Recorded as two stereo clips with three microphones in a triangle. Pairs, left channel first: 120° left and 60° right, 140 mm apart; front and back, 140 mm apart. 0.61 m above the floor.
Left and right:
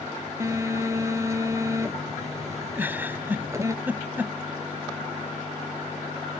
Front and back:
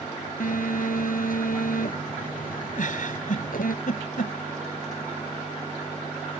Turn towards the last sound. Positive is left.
turn(degrees=15)